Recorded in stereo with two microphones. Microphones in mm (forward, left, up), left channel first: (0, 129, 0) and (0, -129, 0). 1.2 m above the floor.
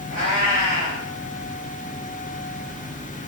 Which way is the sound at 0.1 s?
80° left.